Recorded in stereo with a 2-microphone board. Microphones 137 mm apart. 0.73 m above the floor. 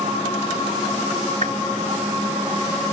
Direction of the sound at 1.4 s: 75° right (ahead or behind).